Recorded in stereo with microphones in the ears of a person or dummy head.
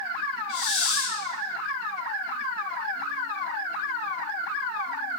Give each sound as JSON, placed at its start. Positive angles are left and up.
{"t": 0.5, "sound": "a hiss", "side_deg": 40, "distance_m": 6.0}